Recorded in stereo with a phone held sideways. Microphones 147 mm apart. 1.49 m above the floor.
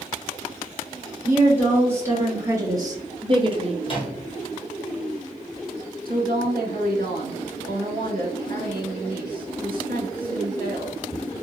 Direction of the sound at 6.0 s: 75° right (ahead or behind).